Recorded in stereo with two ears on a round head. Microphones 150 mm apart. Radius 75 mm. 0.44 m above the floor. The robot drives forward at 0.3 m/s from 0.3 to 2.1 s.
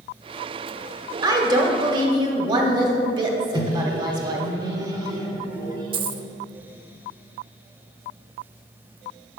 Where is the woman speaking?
25° right (ahead or behind), 1.1 m; by 4.5 s 30° right (ahead or behind), 1.1 m.